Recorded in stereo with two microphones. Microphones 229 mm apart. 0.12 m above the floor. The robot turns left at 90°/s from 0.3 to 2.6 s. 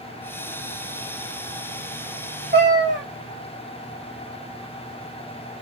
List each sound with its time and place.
2.5 s a cat meowing: 40° right (ahead or behind), 3.5 m; by 3.0 s 50° right (ahead or behind), 3.5 m